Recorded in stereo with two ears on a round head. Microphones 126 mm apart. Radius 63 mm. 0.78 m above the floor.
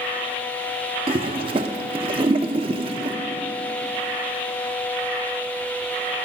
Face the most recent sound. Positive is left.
turn(degrees=-35)  # may be behind; listen again after turning